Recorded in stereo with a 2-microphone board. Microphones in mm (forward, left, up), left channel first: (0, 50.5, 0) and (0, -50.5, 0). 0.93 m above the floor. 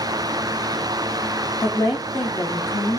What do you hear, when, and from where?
1.6 s a woman speaking: 45° left (ahead or behind), 1.5 m